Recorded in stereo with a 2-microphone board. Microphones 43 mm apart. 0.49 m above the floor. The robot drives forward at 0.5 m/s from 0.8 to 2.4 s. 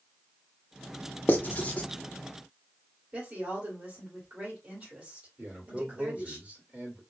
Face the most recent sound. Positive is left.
turn(degrees=-30)  # may be behind; listen again after turning